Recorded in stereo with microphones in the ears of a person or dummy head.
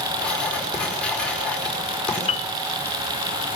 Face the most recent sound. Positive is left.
turn(degrees=35)  # may be behind; listen again after turning